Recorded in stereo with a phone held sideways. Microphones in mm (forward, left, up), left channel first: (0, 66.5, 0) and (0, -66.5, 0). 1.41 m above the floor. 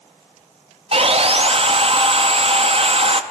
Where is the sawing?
45° right (ahead or behind), 0.5 m.